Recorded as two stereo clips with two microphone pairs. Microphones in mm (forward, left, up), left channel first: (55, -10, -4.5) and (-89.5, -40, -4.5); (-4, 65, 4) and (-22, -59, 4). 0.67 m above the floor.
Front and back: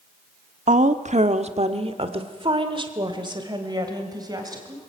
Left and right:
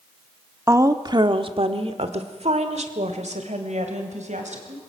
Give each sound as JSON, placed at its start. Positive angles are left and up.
{"t": 0.7, "sound": "a woman speaking", "azimuth_deg": -165, "distance_m": 1.1}